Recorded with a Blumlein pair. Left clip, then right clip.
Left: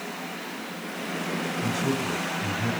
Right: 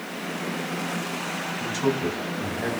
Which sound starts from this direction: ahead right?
A man speaking, at 1.6 s.